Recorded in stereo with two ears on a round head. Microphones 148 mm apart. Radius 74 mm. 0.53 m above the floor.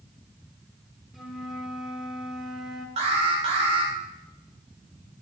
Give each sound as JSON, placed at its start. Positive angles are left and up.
{"t": 1.1, "sound": "a flute", "side_deg": 0, "distance_m": 1.4}
{"t": 3.0, "sound": "an alarm", "side_deg": -35, "distance_m": 2.0}